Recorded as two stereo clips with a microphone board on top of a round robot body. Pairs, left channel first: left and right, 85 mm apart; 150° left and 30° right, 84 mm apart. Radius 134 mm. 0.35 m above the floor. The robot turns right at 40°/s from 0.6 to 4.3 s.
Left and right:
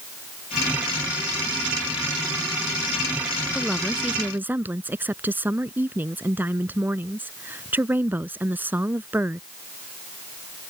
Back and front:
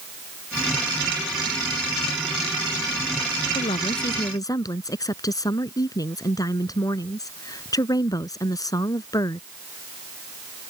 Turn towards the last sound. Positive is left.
turn(degrees=-160)